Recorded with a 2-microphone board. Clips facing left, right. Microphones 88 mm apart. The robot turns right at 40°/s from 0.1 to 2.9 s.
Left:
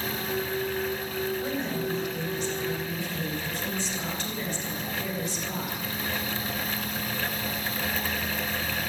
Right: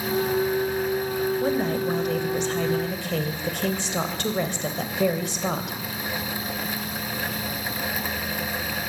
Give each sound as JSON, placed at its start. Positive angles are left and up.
{"t": 1.4, "sound": "a woman speaking", "azimuth_deg": -140, "distance_m": 3.0}